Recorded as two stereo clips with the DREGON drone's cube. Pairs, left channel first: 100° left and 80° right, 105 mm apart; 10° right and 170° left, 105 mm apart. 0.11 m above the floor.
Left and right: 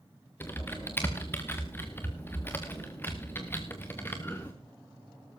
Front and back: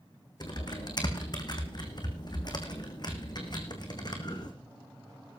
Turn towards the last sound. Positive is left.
turn(degrees=30)